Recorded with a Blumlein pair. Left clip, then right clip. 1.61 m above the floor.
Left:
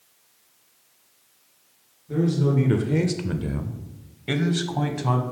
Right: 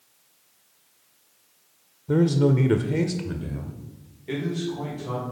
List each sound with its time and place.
2.1 s a man speaking: 45° right, 0.6 m; by 5.2 s 55° left, 1.4 m